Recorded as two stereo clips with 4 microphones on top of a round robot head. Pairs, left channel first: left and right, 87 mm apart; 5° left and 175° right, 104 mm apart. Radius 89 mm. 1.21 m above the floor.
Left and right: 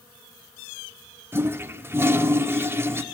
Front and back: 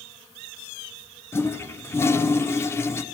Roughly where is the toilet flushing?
Ahead right.